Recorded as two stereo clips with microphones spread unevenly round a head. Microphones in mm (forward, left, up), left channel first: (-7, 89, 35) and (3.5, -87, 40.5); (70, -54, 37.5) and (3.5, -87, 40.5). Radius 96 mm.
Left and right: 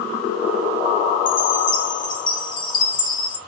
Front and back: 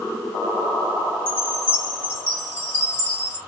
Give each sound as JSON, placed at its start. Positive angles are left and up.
{"t": 1.3, "sound": "a chime", "azimuth_deg": 85, "distance_m": 0.8}